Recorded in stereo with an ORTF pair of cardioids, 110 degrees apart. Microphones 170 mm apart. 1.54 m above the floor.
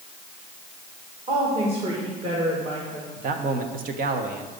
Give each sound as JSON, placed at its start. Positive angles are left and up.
{"t": 1.3, "sound": "a woman speaking", "azimuth_deg": -35, "distance_m": 2.5}
{"t": 3.2, "sound": "a man speaking", "azimuth_deg": -55, "distance_m": 1.3}